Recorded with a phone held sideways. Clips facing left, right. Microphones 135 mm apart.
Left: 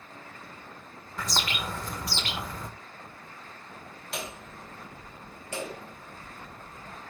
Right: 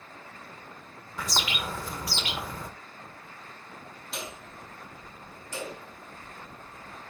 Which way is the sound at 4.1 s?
70° left (ahead or behind).